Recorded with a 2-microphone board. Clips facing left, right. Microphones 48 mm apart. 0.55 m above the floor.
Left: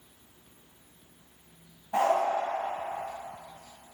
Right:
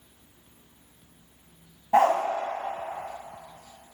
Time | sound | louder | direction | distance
1.9 | a dog barking | right 5 dB | 80° right | 1.3 m